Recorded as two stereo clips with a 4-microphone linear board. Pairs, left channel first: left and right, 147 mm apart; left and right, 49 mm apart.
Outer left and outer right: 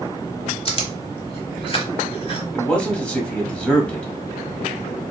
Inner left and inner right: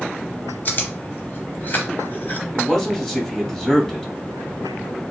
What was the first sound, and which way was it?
Chewing, 40° left (ahead or behind).